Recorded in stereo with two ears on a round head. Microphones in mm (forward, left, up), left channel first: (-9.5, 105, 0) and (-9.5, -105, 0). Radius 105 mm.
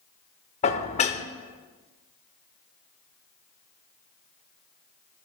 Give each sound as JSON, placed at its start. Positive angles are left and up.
{"t": 0.6, "sound": "dishes clattering", "side_deg": 30, "distance_m": 0.6}